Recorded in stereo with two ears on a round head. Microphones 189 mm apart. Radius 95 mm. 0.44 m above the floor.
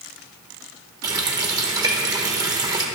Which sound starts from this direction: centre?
A running tap, at 1.0 s.